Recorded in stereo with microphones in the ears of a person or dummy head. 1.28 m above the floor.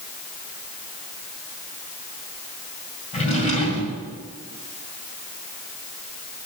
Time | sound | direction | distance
3.1 | a drawer | 35° left (ahead or behind) | 2 m